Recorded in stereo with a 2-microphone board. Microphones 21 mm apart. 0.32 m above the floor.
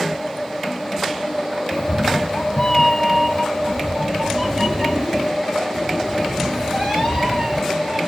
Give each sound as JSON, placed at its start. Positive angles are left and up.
{"t": 1.7, "sound": "a cat meowing", "side_deg": 55, "distance_m": 0.9}